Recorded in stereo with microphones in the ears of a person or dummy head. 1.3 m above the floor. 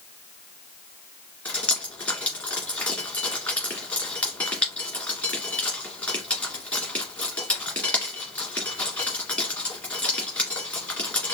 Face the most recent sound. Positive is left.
turn(degrees=10)  # may be behind; listen again after turning